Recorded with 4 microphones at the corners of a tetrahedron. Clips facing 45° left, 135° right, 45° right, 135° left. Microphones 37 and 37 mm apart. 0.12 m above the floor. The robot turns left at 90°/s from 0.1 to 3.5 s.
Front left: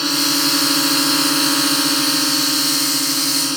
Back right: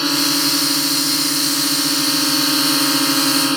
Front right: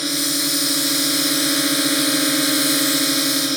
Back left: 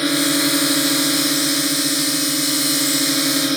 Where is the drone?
150° left; by 3.6 s 155° right.